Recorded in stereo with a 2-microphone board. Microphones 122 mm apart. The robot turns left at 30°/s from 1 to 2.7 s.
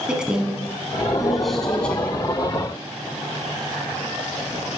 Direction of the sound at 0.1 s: 5° right (ahead or behind).